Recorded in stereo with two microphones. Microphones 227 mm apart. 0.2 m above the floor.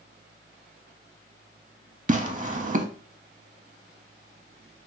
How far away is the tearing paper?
About 0.5 m.